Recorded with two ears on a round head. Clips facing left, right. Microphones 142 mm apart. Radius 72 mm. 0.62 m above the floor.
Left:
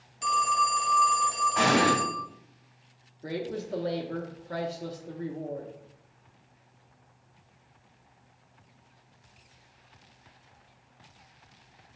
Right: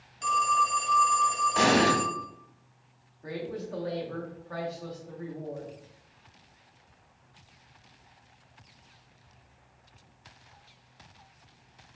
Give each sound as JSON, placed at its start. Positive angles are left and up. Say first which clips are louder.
{"t": 0.2, "sound": "a phone ringing", "louder": "even", "side_deg": 5, "distance_m": 0.7}
{"t": 1.6, "sound": "an explosion", "louder": "right 1 dB", "side_deg": -45, "distance_m": 1.5}
{"t": 3.2, "sound": "a woman speaking", "louder": "left 2 dB", "side_deg": 30, "distance_m": 0.6}